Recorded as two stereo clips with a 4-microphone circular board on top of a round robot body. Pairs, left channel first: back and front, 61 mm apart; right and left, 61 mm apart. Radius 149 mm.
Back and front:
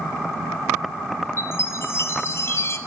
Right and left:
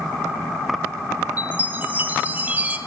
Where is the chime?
145° left, 0.9 m.